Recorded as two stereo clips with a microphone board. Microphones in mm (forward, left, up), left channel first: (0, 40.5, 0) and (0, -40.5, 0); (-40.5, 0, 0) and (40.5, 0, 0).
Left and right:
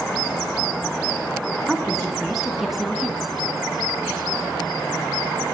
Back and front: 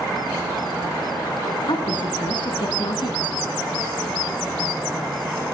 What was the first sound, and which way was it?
A woman speaking, 175° right.